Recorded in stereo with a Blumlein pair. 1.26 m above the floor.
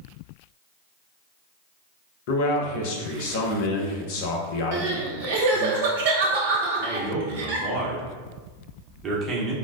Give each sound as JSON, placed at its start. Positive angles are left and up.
{"t": 2.3, "sound": "a man speaking", "azimuth_deg": 50, "distance_m": 0.7}
{"t": 4.7, "sound": "crying", "azimuth_deg": -50, "distance_m": 0.8}
{"t": 6.8, "sound": "a man speaking", "azimuth_deg": -20, "distance_m": 0.9}